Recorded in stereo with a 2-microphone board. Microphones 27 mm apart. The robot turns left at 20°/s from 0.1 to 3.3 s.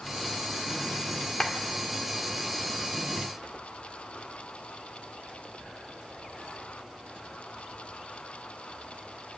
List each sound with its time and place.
1.4 s a clap: 25° left (ahead or behind), 1.8 m; by 1.6 s 20° left (ahead or behind), 1.8 m